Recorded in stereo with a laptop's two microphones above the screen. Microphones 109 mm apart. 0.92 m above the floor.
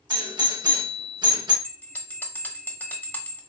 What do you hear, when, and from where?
0.1 s a doorbell: 40° right (ahead or behind), 1.3 m
1.6 s a bell: 20° left (ahead or behind), 1.1 m